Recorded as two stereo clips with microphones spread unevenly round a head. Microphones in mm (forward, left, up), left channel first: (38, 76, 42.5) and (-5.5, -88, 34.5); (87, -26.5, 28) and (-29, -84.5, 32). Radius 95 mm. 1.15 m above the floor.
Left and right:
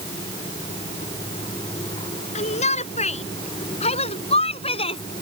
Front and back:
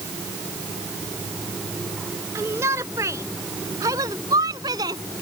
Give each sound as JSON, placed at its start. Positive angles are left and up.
{"t": 2.4, "sound": "a shout", "azimuth_deg": 130}